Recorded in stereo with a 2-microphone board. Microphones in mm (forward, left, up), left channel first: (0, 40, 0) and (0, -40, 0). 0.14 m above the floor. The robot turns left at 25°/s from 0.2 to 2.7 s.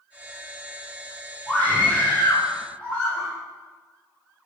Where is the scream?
25° left (ahead or behind), 1.7 m; by 3.3 s 15° left (ahead or behind), 1.7 m.